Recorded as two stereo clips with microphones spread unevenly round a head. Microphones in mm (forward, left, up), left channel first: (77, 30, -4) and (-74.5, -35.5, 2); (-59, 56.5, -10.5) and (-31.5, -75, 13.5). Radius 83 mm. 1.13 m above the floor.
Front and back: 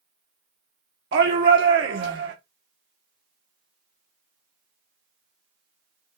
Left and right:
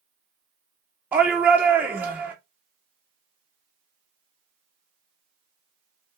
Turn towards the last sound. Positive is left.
turn(degrees=-160)